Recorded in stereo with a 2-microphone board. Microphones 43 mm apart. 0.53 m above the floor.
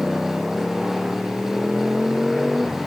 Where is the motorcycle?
5° right (ahead or behind); by 2.9 s centre (ahead or behind).